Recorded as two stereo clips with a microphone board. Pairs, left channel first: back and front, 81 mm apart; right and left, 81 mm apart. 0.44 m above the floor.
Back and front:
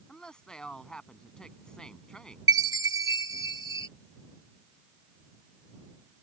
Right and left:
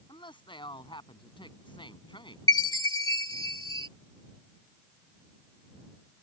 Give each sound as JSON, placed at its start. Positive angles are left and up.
{"t": 0.1, "sound": "a woman speaking", "azimuth_deg": -100}
{"t": 2.5, "sound": "a chime", "azimuth_deg": -45}